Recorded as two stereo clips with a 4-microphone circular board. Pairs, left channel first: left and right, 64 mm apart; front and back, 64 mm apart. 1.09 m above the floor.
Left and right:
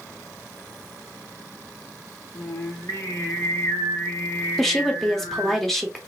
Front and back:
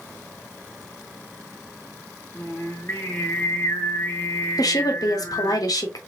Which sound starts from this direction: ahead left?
Singing, at 2.3 s.